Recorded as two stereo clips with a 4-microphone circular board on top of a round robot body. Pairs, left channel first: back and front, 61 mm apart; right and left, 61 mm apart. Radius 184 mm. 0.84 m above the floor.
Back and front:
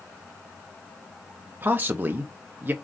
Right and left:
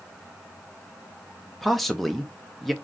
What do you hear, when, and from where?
1.6 s a man speaking: straight ahead, 0.7 m